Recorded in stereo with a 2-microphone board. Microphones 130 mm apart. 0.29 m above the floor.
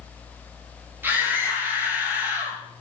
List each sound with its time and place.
1.0 s a scream: 15° right (ahead or behind), 7.5 m